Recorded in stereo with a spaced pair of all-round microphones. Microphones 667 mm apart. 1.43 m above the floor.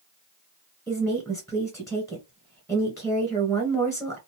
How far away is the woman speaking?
About 1.1 m.